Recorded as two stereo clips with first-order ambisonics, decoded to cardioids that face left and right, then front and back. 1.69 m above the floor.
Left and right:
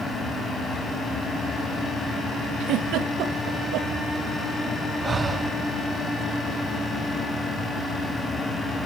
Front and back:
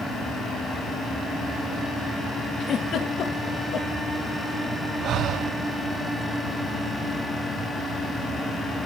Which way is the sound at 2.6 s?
55° right.